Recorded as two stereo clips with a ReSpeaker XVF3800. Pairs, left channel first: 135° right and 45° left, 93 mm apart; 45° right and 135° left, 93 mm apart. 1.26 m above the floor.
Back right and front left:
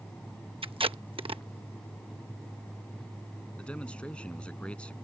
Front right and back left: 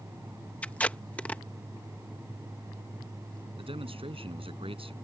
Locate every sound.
0.6 s tape being pulled: 30° left
3.6 s a man speaking: 145° left